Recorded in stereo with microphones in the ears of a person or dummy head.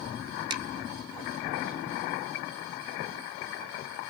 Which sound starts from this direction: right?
A finger snap, at 0.5 s.